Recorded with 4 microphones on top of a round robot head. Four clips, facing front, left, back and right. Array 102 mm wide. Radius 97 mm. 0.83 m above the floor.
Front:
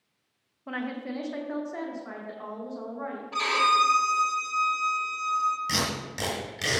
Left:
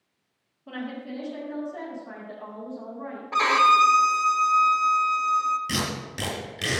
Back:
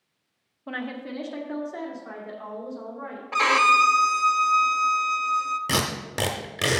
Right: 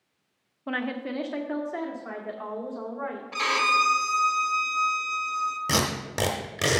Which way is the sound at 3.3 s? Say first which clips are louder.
Left 6 dB, back 4 dB; 135° left.